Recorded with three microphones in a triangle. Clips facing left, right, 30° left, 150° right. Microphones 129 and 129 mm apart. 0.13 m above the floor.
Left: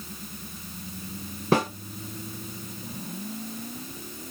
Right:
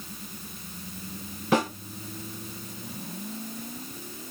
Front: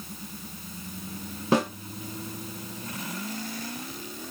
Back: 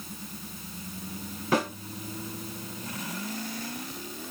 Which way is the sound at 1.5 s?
70° left.